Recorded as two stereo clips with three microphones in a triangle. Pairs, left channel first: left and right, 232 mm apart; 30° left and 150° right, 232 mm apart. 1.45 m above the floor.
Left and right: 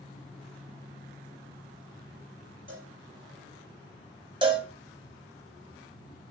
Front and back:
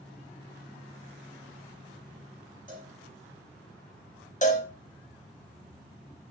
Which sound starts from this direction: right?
A cowbell, at 2.7 s.